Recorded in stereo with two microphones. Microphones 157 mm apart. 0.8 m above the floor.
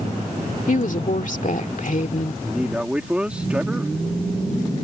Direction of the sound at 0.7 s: 60° left (ahead or behind).